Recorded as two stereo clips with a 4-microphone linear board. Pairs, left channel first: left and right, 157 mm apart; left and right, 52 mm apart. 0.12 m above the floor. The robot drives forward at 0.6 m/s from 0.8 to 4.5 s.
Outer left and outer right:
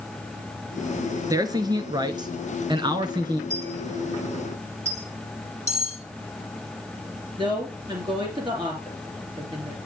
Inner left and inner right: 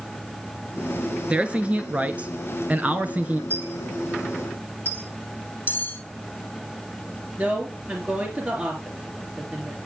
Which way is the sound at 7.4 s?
30° right (ahead or behind).